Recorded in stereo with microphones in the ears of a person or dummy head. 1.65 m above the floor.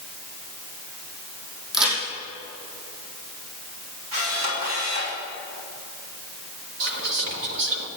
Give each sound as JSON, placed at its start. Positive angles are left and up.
{"t": 1.7, "sound": "a crack", "side_deg": -5, "distance_m": 5.0}
{"t": 4.1, "sound": "a camera shutter", "side_deg": -90, "distance_m": 4.5}
{"t": 6.8, "sound": "whispering", "side_deg": -65, "distance_m": 1.5}